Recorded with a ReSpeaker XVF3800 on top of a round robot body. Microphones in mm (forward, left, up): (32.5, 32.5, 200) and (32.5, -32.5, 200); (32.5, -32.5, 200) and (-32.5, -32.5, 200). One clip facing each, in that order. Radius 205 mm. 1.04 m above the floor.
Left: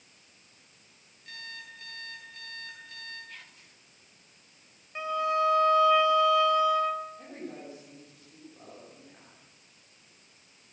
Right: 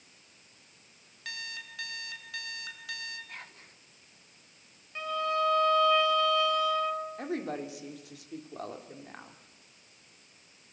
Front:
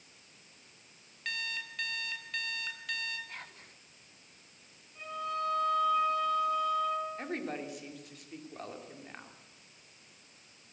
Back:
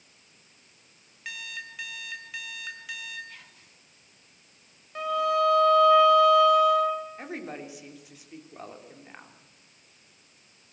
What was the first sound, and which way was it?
An alarm clock, 100° right.